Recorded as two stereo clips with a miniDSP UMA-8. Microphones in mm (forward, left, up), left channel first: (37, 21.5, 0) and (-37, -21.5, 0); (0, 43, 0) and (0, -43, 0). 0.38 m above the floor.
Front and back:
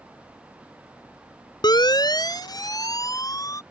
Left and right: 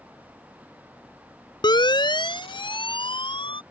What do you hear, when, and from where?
1.6 s a siren: 60° left; by 3.6 s 80° left